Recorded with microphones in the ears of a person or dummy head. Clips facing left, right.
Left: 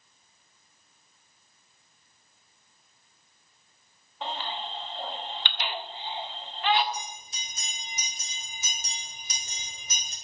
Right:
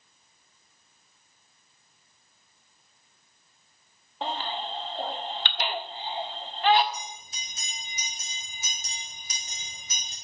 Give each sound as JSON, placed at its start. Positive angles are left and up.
{"t": 4.2, "sound": "a baby crying", "side_deg": -35, "distance_m": 1.6}
{"t": 6.9, "sound": "a bell", "side_deg": 85, "distance_m": 6.5}